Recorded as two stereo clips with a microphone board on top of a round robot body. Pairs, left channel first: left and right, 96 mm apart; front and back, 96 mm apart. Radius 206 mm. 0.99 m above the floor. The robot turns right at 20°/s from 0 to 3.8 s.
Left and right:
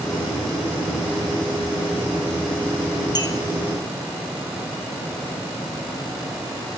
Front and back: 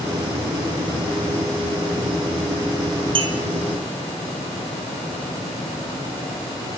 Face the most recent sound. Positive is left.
turn(degrees=150)